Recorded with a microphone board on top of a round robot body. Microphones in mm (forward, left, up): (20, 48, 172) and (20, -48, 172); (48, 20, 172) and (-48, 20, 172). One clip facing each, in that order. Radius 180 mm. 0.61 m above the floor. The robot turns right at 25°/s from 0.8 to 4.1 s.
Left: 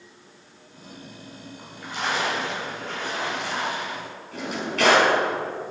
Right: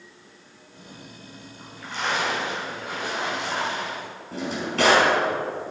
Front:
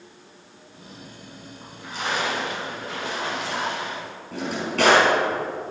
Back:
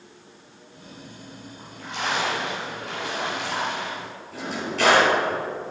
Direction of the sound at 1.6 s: 160° left.